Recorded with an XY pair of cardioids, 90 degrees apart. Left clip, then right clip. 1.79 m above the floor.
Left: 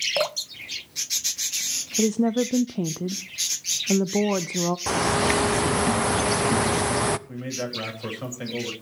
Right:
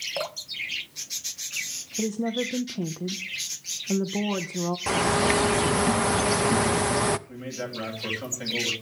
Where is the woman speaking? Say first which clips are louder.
Left 5 dB; 45° left, 0.6 m.